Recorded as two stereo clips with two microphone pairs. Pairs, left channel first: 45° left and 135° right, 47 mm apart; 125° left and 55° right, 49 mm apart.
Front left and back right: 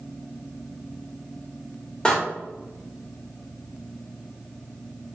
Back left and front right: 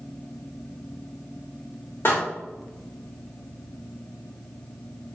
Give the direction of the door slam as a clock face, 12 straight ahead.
8 o'clock.